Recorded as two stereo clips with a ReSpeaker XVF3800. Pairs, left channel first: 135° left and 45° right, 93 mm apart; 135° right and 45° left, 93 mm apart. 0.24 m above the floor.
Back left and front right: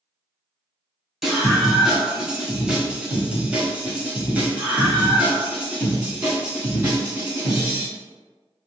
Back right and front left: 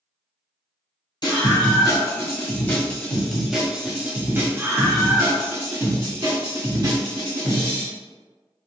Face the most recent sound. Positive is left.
turn(degrees=30)